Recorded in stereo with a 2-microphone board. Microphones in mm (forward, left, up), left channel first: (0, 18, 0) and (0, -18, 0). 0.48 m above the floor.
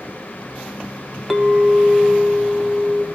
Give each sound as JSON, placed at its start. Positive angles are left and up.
{"t": 1.3, "sound": "a clink", "side_deg": -5, "distance_m": 1.1}